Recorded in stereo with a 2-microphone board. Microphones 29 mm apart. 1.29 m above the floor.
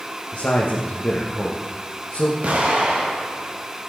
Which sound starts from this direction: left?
A man speaking, at 0.3 s.